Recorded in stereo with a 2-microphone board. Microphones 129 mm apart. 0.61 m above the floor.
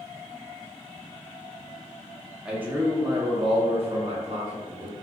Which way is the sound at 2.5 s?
5° right (ahead or behind).